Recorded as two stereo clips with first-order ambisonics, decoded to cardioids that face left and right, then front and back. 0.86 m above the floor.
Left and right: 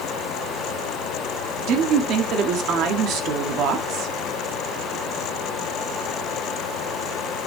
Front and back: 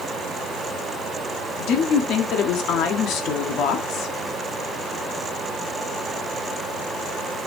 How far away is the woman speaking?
About 1.6 m.